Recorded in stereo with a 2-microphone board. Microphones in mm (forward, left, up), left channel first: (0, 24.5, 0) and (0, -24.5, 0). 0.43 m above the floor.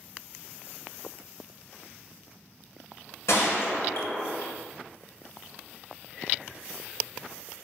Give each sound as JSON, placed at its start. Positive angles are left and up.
{"t": 3.3, "sound": "a gunshot", "side_deg": 70, "distance_m": 1.4}